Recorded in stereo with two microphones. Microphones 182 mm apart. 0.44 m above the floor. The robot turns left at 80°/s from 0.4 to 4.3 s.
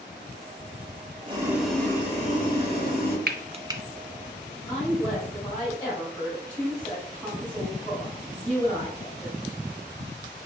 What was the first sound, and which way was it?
Boiling, 145° right.